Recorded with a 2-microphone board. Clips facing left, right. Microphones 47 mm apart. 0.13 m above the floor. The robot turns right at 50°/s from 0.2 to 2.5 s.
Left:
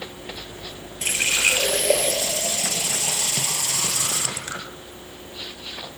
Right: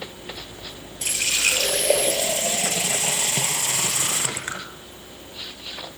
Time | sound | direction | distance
1.0 | a running tap | 135° left | 1.8 m